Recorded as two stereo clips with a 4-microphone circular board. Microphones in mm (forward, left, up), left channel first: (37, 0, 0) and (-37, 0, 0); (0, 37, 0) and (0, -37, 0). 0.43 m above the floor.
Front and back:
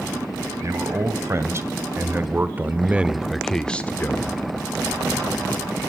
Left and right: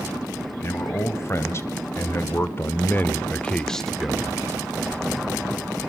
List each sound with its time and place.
0.6 s a man speaking: 140° left, 2.5 m; by 4.4 s 15° right, 1.1 m